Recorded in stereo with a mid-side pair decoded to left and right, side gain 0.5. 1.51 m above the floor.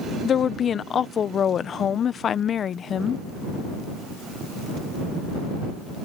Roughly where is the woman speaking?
Ahead left.